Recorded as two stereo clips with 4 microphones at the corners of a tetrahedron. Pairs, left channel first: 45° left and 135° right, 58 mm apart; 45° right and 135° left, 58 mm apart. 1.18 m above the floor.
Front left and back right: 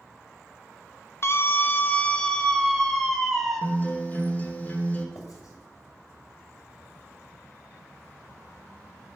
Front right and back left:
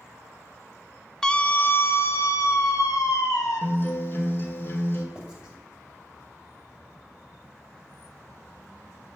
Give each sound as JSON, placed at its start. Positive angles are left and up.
{"t": 1.2, "sound": "a scream", "azimuth_deg": 30, "distance_m": 0.6}
{"t": 3.6, "sound": "a guitar", "azimuth_deg": -10, "distance_m": 1.1}
{"t": 5.2, "sound": "writing", "azimuth_deg": 60, "distance_m": 2.0}